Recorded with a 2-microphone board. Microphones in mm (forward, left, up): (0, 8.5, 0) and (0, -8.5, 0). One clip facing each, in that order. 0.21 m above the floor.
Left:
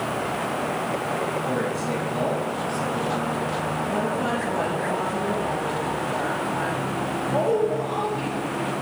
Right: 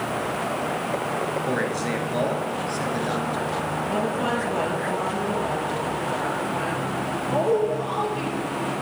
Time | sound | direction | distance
1.5 | a man speaking | 45° right (ahead or behind) | 2.5 m
3.9 | a woman speaking | 25° right (ahead or behind) | 4 m